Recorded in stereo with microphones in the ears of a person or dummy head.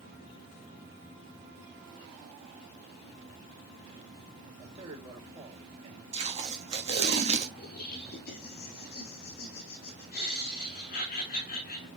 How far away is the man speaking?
About 4 m.